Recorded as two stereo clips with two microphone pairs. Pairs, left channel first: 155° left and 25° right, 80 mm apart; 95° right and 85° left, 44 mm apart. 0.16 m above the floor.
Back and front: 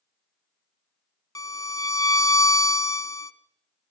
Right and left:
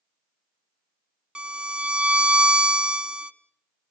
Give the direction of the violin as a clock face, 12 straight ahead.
7 o'clock.